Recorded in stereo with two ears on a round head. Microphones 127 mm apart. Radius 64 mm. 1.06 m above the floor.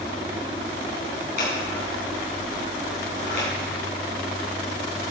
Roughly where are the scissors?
Left.